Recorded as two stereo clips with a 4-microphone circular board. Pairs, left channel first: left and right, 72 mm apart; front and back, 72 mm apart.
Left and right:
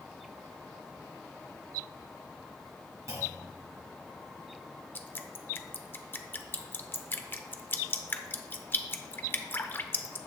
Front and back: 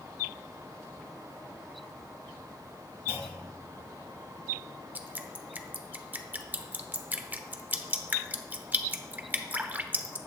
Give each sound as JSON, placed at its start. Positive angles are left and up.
{"t": 3.1, "sound": "a clunk", "azimuth_deg": -130, "distance_m": 2.5}
{"t": 5.0, "sound": "dripping", "azimuth_deg": 130, "distance_m": 0.8}